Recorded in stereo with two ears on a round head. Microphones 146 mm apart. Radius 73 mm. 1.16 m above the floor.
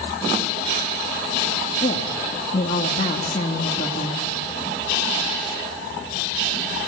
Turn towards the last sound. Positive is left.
turn(degrees=35)  # may be behind; listen again after turning